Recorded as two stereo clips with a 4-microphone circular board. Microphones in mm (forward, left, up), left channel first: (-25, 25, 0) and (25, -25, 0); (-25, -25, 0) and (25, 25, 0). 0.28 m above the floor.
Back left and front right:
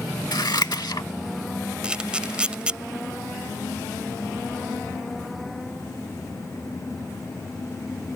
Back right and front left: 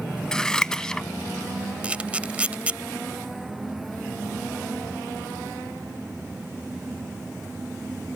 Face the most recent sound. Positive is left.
turn(degrees=5)